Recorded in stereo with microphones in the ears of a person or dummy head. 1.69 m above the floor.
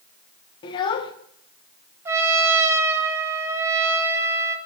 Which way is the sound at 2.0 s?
15° right (ahead or behind).